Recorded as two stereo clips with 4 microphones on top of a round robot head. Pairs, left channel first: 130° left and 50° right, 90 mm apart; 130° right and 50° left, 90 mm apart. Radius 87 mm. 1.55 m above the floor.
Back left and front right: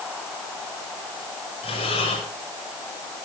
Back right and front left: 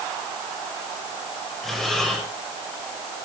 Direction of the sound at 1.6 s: 145° left.